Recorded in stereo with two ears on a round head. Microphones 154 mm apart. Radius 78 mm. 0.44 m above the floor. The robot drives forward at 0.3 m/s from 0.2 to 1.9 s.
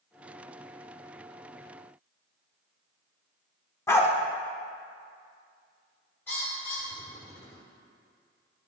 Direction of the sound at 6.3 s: 10° left (ahead or behind).